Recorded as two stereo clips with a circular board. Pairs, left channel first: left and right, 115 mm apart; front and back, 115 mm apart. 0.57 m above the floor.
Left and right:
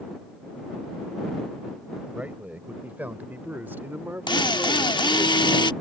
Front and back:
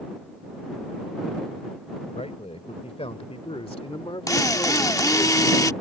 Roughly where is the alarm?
I don't hear an alarm.